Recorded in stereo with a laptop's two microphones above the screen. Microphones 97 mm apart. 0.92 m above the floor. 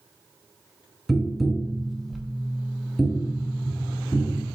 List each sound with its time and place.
1.1 s tapping: centre (ahead or behind), 0.6 m